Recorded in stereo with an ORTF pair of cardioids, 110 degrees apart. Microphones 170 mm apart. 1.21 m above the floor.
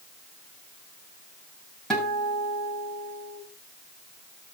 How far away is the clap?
I don't hear a clap.